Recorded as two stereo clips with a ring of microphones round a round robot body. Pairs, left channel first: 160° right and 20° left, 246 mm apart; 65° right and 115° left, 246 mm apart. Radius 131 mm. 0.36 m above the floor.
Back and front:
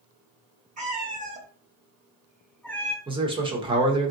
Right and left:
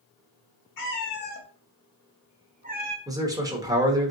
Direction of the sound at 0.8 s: 35° right.